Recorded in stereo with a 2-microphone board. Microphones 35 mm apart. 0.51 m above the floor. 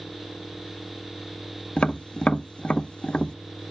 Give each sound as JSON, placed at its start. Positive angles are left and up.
{"t": 1.8, "sound": "tapping", "side_deg": 30, "distance_m": 0.6}